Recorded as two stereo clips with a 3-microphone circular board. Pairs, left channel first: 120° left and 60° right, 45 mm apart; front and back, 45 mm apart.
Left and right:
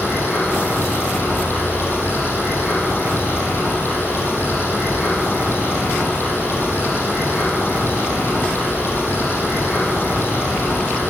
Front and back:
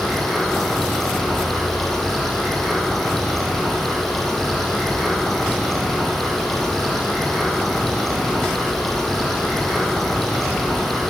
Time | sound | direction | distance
0.0 | running water | 85° left | 6 m